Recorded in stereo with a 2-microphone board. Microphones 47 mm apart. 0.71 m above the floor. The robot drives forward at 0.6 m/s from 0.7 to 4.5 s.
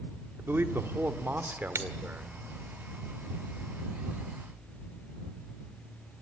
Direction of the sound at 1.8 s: 75° right (ahead or behind).